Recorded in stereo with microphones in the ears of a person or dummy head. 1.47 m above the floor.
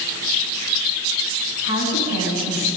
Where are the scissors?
I don't hear scissors.